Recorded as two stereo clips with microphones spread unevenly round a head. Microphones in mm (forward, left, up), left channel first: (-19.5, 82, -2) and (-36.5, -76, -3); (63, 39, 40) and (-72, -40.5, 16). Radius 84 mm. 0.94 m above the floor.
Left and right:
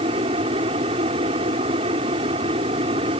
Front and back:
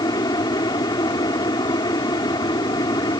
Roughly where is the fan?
Ahead right.